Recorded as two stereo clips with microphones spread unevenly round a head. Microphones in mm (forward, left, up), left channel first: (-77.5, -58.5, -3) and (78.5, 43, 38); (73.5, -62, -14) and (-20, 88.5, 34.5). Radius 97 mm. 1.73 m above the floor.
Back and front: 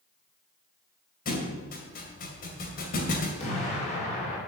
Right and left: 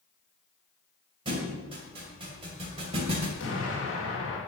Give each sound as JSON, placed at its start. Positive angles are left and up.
{"t": 1.2, "sound": "a thud", "azimuth_deg": 165, "distance_m": 2.5}
{"t": 3.4, "sound": "an explosion", "azimuth_deg": -90, "distance_m": 3.5}